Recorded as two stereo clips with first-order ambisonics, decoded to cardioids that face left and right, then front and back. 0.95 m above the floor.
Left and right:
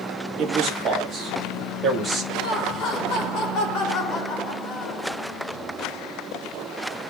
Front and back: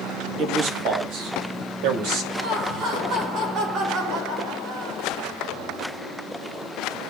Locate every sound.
0.4 s a man speaking: 145° right, 1.6 m; by 2.2 s 160° right, 2.5 m
2.3 s laughter: 135° left, 2.5 m